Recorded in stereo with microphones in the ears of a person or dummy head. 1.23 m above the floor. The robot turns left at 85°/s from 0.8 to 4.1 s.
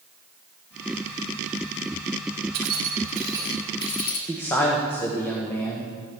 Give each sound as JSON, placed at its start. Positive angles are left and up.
{"t": 2.5, "sound": "keys jangling", "side_deg": -80, "distance_m": 2.5}
{"t": 4.3, "sound": "a man speaking", "side_deg": 10, "distance_m": 1.4}